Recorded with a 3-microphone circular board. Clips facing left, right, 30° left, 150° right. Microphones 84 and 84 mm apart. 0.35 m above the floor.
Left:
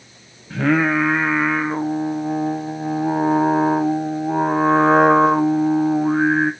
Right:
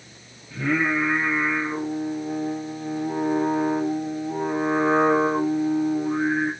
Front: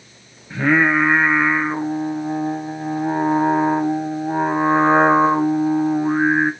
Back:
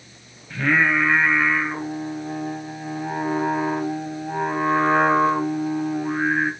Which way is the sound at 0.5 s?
95° left.